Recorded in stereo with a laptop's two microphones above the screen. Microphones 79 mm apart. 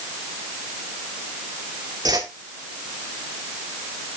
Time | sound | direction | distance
2.0 | a whoosh | 65° right (ahead or behind) | 2 m